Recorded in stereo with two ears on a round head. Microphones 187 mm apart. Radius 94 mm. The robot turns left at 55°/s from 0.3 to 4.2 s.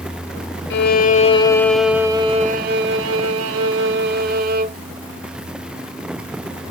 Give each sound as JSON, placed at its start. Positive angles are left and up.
{"t": 0.7, "sound": "a violin", "azimuth_deg": 60, "distance_m": 0.7}